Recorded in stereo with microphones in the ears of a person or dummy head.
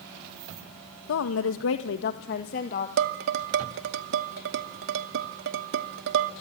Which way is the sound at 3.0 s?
65° right (ahead or behind).